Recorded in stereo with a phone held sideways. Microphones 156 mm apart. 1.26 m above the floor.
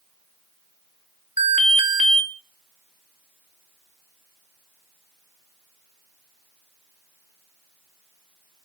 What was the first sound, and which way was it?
An alarm, 55° left (ahead or behind).